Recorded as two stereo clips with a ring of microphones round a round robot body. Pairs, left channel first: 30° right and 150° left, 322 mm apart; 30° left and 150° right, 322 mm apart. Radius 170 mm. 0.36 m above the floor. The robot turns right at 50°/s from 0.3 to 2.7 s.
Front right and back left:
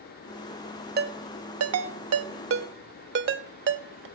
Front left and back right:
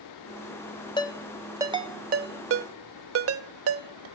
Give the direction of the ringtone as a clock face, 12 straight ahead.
9 o'clock.